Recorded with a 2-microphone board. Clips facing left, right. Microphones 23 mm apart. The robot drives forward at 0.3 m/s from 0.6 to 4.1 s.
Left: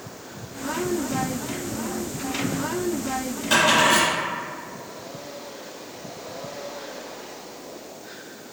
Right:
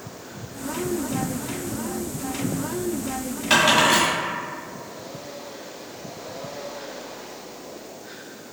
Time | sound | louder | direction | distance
3.5 | a dropped coin | right 1 dB | 75° right (ahead or behind) | 1.1 m